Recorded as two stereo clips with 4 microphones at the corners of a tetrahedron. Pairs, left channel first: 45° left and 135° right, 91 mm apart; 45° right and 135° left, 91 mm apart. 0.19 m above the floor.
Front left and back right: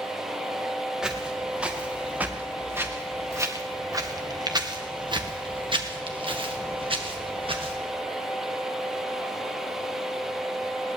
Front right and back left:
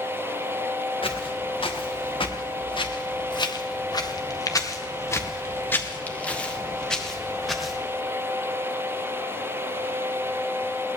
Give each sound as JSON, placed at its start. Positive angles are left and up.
{"t": 1.0, "sound": "footsteps", "azimuth_deg": -55, "distance_m": 3.5}